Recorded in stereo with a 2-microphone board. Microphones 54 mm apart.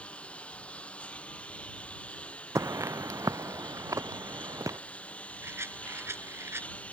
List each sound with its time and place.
0.0 s a lawn mower: 20° left (ahead or behind); by 6.9 s 25° left (ahead or behind)
2.5 s footsteps: 70° right (ahead or behind); by 4.8 s 85° right
5.4 s a rattle: 55° right (ahead or behind)